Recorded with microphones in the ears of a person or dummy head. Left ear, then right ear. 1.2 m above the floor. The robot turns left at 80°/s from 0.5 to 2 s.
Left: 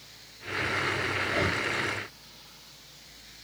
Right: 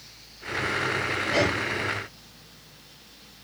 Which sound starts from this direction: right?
Breathing, at 1.2 s.